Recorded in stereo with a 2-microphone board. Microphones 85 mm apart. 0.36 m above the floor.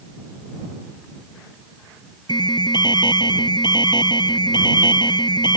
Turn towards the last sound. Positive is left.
turn(degrees=60)  # may be behind; listen again after turning